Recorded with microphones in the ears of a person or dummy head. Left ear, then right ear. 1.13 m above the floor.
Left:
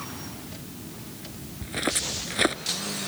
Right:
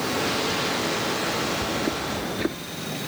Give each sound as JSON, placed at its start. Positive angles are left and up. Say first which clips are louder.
{"t": 1.6, "sound": "footsteps", "louder": "right 3 dB", "side_deg": 25}